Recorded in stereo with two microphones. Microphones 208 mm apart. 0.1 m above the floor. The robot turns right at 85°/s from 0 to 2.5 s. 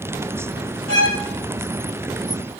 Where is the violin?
75° right (ahead or behind), 5.5 m; by 1.2 s 65° right (ahead or behind), 5.5 m.